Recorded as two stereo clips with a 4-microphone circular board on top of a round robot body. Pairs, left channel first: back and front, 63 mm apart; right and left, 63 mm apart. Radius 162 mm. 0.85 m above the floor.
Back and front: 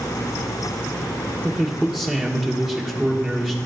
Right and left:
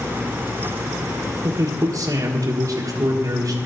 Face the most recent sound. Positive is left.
turn(degrees=75)